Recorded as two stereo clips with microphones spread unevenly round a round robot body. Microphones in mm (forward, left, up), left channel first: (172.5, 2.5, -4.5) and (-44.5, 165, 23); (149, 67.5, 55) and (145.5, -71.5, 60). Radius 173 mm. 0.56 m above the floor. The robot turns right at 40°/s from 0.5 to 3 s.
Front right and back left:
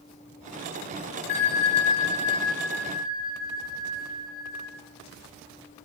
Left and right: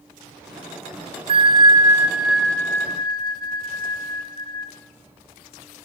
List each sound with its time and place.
1.3 s a bell: 45° right, 1.6 m; by 4.7 s 25° left, 1.6 m